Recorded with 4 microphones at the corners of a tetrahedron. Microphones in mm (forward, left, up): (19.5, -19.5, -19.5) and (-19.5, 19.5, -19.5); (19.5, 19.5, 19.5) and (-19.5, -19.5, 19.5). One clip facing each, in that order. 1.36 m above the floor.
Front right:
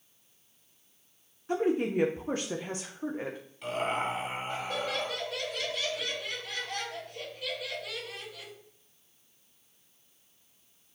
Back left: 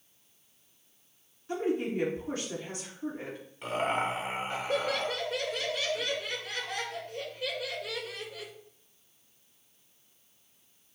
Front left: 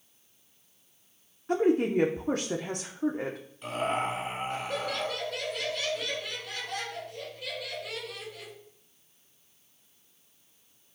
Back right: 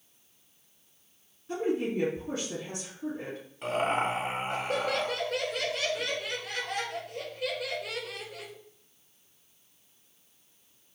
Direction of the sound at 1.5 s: 15° left.